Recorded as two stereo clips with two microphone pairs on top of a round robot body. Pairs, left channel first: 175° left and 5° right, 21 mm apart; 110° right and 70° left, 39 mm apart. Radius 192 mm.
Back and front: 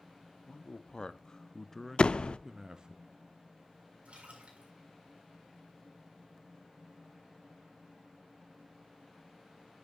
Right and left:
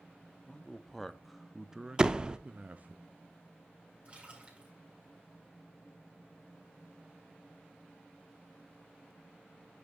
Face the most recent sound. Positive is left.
turn(degrees=10)